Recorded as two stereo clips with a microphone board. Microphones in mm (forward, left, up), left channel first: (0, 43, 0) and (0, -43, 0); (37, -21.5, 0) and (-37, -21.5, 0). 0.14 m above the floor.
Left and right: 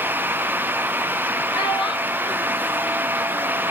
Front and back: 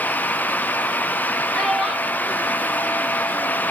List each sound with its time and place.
1.5 s a child speaking: 90° left, 2.5 m; by 3.6 s 120° left, 3 m